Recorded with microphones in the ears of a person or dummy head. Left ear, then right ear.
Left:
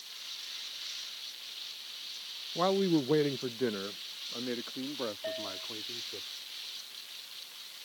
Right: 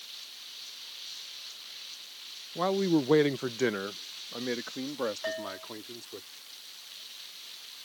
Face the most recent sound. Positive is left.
turn(degrees=-60)  # may be behind; listen again after turning